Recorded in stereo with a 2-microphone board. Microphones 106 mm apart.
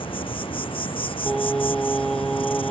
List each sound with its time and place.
0.0 s an insect: 55° left (ahead or behind)
1.3 s singing: 5° left (ahead or behind)